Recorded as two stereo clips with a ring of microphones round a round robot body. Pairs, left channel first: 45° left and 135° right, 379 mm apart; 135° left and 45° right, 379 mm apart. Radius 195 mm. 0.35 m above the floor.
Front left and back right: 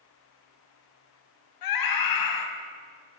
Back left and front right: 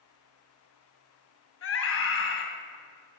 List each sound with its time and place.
1.6 s a scream: 75° left, 2.5 m